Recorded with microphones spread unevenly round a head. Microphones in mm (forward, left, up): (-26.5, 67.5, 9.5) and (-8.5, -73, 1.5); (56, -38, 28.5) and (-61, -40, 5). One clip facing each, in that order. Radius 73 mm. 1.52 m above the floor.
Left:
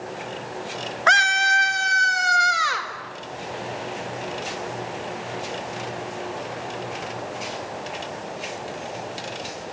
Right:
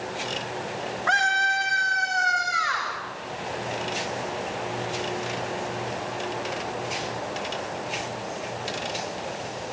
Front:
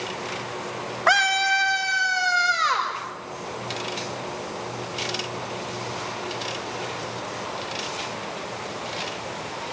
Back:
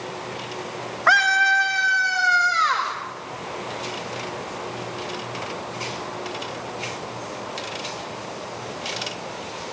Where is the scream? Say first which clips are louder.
Left 4 dB, back 2 dB; 75° left, 1.2 m; by 2.9 s 70° left, 2.5 m.